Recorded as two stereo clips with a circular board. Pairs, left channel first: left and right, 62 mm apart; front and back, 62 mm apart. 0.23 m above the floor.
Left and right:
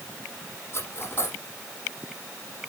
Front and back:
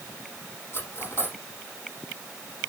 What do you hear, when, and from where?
0.7 s cutlery clinking: 45° left, 5.5 m